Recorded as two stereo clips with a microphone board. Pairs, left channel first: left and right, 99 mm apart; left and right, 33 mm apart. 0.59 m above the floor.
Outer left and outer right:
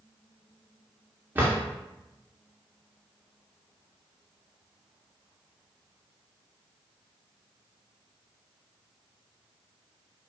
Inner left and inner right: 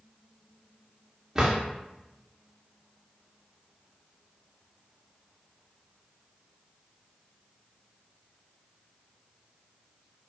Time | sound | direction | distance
1.4 | a drawer | 20° right (ahead or behind) | 0.6 m